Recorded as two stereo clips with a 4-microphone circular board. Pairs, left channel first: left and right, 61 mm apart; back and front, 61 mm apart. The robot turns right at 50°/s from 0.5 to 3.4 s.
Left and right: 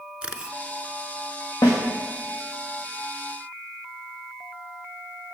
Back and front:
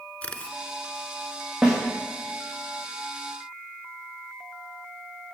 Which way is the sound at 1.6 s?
85° left.